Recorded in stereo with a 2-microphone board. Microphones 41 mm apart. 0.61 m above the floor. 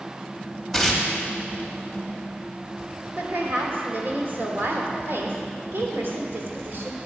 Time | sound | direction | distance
0.7 | tearing paper | centre (ahead or behind) | 1.4 m
3.2 | a woman speaking | 60° right (ahead or behind) | 1.6 m